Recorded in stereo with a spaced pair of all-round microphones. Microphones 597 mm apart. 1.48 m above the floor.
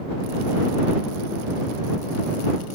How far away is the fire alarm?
I don't hear a fire alarm.